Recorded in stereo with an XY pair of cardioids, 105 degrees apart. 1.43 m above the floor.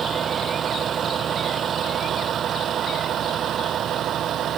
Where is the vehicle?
50° right; by 4.6 s 65° right.